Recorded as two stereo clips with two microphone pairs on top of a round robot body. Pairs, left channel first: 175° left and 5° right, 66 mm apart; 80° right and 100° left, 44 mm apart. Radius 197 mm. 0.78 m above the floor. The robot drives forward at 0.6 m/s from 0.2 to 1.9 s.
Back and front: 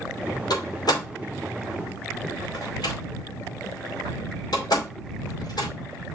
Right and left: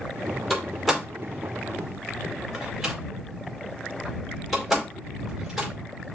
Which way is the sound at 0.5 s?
170° right.